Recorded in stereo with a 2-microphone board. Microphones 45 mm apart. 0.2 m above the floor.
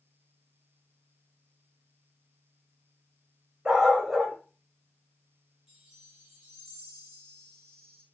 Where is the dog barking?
20° right (ahead or behind), 4 m.